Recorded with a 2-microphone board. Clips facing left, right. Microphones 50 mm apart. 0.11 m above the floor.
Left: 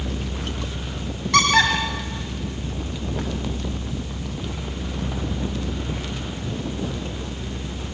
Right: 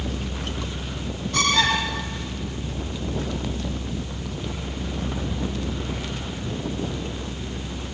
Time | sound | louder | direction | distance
1.3 | a squeak | left 4 dB | 85° left | 8 m